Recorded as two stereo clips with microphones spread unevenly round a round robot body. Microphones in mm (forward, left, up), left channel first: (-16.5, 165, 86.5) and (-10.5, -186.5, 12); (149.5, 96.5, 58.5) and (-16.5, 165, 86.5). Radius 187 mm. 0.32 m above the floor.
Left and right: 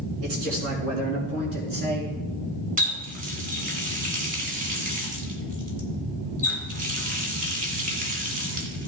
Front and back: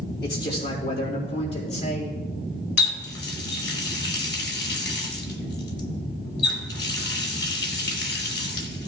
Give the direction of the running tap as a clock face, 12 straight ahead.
1 o'clock.